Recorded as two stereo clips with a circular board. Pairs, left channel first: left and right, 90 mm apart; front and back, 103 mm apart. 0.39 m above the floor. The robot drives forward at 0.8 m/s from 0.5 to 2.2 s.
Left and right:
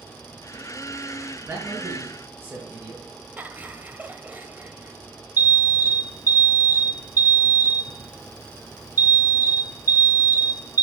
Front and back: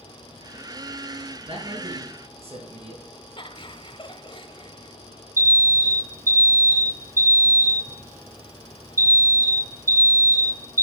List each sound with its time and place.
1.4 s a man speaking: 155° right, 5 m
3.4 s laughter: 20° right, 1.5 m
5.4 s an alarm: 55° left, 1.4 m